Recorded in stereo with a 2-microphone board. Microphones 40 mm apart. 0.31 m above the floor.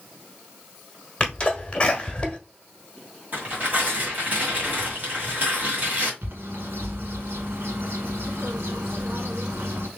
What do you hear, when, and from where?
1.2 s a sneeze: 25° left (ahead or behind), 1.3 m
3.3 s tearing paper: 45° right (ahead or behind), 1.9 m
6.2 s a bird: 80° right, 1.0 m